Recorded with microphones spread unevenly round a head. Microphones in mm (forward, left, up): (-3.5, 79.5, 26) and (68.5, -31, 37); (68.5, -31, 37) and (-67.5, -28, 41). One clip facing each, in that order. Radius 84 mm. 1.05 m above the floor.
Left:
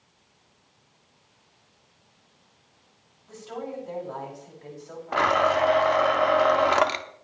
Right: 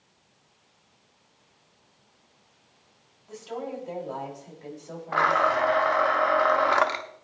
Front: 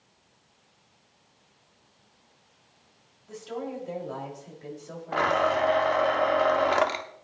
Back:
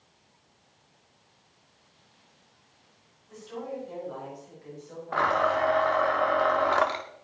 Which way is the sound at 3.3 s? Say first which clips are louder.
Right 1 dB, front 2 dB; 20° left.